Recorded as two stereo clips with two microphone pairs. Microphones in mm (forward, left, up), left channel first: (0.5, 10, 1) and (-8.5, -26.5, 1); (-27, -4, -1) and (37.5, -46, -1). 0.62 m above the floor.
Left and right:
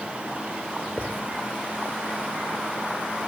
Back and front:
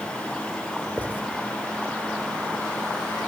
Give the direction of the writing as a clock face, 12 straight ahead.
9 o'clock.